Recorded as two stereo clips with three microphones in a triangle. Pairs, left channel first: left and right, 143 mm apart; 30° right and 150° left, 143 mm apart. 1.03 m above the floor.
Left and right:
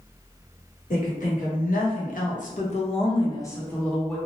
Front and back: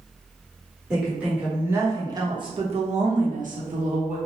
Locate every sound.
0.9 s a woman speaking: 65° left, 1.3 m; by 4.2 s straight behind, 0.9 m